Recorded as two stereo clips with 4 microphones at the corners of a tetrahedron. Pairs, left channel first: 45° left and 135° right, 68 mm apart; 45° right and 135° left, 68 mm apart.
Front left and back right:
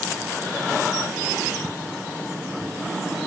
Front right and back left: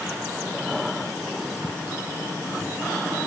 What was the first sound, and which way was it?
Only background noise.